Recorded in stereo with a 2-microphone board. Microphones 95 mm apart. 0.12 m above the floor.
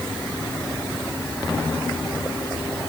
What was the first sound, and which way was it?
Only background noise.